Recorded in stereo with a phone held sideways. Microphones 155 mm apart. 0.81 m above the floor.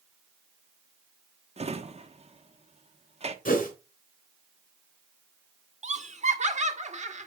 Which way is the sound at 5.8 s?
50° right (ahead or behind).